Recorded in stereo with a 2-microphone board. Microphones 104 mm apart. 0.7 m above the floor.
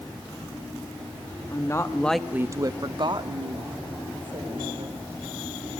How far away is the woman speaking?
About 1.0 m.